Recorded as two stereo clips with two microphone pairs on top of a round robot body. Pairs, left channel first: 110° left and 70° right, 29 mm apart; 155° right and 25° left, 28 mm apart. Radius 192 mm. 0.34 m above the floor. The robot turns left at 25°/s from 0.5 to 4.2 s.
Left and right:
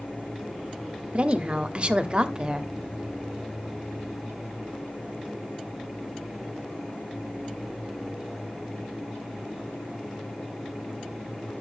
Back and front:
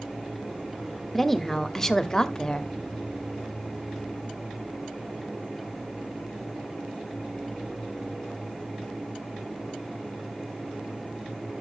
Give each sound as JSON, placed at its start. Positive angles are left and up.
{"t": 1.1, "sound": "a woman speaking", "azimuth_deg": -85, "distance_m": 1.5}